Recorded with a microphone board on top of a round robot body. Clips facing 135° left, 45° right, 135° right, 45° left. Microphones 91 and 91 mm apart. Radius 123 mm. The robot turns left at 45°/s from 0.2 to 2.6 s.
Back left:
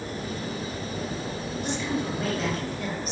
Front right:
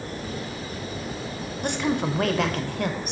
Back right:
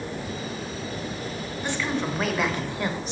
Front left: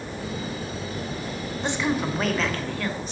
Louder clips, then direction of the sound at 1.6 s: Front right 5 dB, front left 2 dB; 20° right.